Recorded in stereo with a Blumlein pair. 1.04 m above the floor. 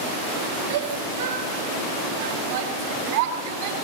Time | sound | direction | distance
0.7 | a shout | 60° right | 6.5 m